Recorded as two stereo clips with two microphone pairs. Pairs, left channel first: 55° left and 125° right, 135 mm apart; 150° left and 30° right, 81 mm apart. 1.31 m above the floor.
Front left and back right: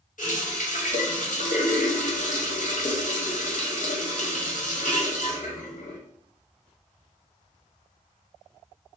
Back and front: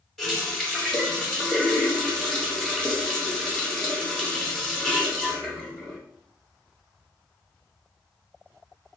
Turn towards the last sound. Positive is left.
turn(degrees=65)